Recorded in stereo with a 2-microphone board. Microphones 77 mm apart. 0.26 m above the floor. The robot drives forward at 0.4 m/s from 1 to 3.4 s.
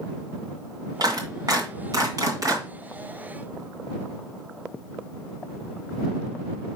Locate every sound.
1.0 s a clap: 55° right (ahead or behind), 2 m; by 2.6 s 45° right (ahead or behind), 2.5 m